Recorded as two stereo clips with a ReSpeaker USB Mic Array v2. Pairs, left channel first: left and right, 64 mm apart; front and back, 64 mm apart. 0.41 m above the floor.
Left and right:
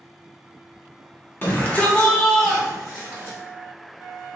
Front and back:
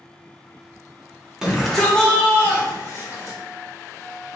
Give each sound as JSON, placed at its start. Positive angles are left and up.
{"t": 1.4, "sound": "a shout", "azimuth_deg": 105, "distance_m": 0.8}